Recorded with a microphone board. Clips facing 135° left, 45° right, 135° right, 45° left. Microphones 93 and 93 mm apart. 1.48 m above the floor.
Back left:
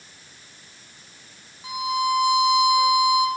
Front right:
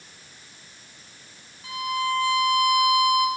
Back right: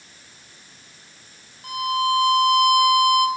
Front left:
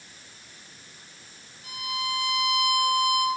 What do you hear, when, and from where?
1.6 s a violin: 155° right, 2.5 m